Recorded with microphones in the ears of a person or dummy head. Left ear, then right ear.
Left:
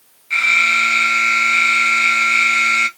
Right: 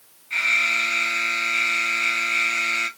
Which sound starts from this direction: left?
An alarm, at 0.3 s.